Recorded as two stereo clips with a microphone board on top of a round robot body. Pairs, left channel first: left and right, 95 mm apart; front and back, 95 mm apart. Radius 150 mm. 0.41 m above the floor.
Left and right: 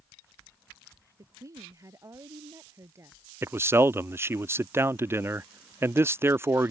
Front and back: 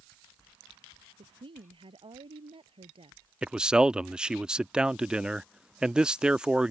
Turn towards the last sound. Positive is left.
turn(degrees=-110)